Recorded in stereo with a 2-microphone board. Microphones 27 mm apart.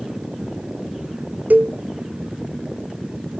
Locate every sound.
1.5 s a cowbell: 75° right (ahead or behind)